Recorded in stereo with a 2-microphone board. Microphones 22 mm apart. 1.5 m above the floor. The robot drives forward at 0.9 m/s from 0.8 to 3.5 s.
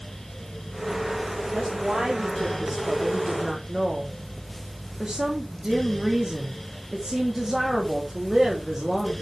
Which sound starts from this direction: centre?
A woman speaking, at 1.5 s.